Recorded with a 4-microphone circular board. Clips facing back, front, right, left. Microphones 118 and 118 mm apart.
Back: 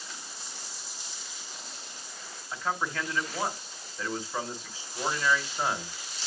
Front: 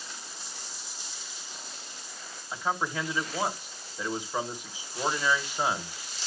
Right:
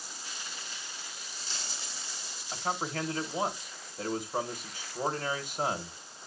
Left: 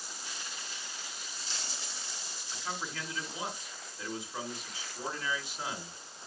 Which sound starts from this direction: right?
A man speaking, at 2.5 s.